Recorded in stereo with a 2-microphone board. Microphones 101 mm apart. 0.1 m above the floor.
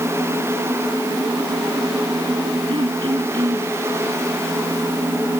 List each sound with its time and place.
2.7 s throat clearing: 55° right (ahead or behind)